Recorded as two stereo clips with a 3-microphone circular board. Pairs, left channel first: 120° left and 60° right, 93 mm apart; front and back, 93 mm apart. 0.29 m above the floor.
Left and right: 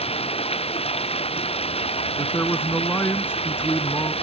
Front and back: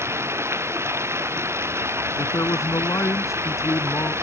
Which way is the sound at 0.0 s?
115° left.